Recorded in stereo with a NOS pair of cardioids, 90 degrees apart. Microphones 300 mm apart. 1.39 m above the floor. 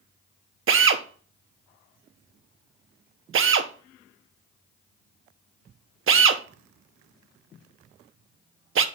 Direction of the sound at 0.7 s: 45° right.